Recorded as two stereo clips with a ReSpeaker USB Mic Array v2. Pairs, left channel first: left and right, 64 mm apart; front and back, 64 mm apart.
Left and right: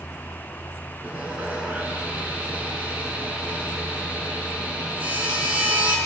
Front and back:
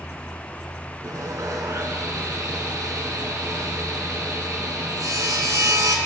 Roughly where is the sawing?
Behind right.